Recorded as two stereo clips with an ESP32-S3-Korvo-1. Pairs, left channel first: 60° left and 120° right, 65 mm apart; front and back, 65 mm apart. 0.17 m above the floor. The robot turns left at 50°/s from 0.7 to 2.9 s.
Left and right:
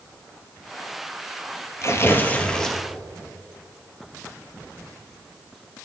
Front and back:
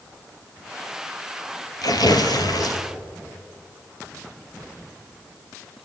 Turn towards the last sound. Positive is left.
turn(degrees=-35)